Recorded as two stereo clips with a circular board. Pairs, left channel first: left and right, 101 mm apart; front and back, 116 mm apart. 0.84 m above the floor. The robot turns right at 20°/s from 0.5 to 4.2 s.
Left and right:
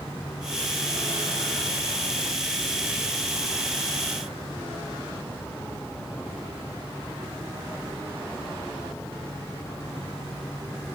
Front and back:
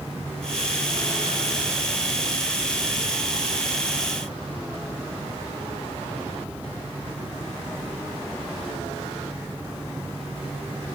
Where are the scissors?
No scissors in this recording.